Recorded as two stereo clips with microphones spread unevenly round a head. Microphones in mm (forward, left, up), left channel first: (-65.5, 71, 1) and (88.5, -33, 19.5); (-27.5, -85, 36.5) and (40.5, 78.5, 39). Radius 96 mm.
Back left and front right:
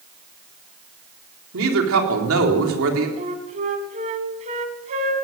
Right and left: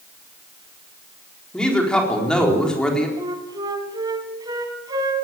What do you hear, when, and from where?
1.5 s a woman speaking: 25° right, 4 m
3.2 s a flute: straight ahead, 2 m